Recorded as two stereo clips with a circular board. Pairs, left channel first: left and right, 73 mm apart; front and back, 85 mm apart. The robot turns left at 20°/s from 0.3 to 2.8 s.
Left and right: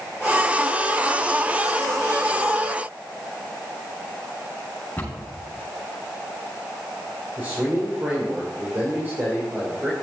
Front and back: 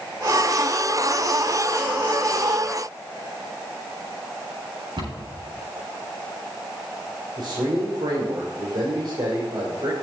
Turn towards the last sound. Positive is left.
turn(degrees=-155)